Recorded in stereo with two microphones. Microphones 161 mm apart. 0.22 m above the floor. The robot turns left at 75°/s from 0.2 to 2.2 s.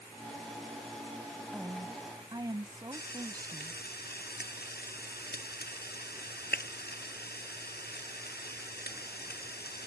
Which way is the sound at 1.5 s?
10° right (ahead or behind).